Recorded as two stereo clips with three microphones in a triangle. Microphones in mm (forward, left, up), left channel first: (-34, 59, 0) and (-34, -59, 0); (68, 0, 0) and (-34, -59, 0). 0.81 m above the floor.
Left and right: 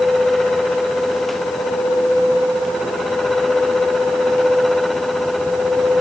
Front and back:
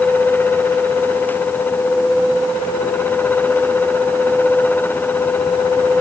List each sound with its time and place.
Only background noise.